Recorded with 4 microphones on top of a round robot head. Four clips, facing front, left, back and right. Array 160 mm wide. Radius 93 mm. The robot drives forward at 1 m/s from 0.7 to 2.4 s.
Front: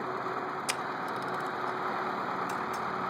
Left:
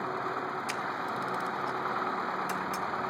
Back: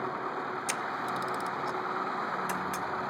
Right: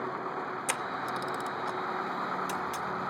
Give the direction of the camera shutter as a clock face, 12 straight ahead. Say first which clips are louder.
Even, back 1 dB; 3 o'clock.